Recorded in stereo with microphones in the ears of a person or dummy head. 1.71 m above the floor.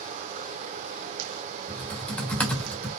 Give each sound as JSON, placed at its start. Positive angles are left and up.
{"t": 0.0, "sound": "running water", "side_deg": -45, "distance_m": 0.8}
{"t": 1.7, "sound": "typing on a keyboard", "side_deg": 10, "distance_m": 1.8}